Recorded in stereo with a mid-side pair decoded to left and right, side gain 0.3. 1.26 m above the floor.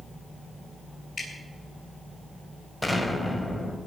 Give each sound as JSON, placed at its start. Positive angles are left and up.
{"t": 1.2, "sound": "dripping", "azimuth_deg": 45, "distance_m": 8.5}
{"t": 2.8, "sound": "an explosion", "azimuth_deg": 10, "distance_m": 4.0}